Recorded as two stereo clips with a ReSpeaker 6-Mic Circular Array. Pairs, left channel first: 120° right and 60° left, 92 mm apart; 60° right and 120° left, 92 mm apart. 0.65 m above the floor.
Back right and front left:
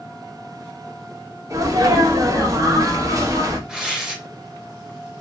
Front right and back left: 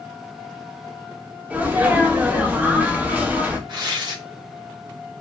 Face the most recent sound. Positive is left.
turn(degrees=145)